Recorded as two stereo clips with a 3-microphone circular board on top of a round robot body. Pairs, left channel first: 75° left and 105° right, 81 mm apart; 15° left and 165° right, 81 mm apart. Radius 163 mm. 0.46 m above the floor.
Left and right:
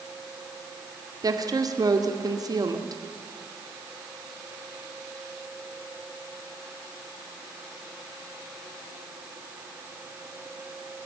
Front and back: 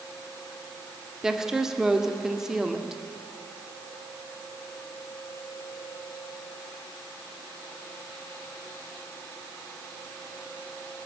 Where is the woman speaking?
80° right, 2 m.